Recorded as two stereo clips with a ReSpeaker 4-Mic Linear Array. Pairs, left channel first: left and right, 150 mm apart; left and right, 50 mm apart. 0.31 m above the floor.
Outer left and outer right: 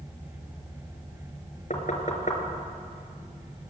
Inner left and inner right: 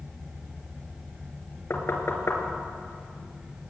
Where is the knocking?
55° left (ahead or behind), 3 m.